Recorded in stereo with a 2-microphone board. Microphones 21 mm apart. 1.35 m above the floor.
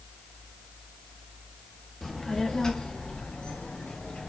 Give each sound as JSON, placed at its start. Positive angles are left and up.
{"t": 2.0, "sound": "a child speaking", "side_deg": 10, "distance_m": 1.1}